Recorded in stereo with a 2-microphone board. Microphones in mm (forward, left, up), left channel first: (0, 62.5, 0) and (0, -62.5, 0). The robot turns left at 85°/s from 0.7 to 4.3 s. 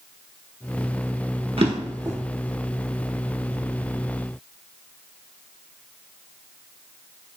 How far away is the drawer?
About 0.6 m.